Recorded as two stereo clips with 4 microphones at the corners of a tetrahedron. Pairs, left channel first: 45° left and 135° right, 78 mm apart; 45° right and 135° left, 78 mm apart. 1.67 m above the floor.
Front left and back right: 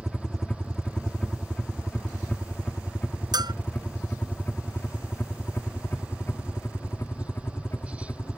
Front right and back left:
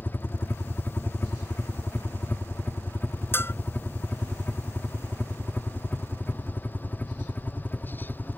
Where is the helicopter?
30° right; by 8.4 s 15° left.